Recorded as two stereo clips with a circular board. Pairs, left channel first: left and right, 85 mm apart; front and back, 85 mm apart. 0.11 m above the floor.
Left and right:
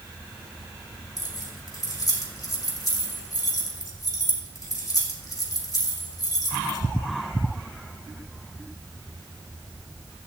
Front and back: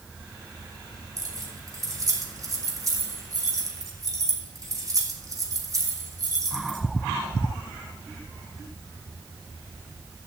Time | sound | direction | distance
1.2 | keys jangling | 135° left | 3 m